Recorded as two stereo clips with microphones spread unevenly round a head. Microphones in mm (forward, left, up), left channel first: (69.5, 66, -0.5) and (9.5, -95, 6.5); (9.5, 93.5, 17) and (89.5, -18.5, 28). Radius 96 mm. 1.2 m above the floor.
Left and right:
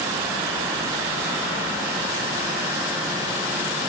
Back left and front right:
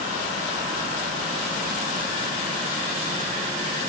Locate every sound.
Only background noise.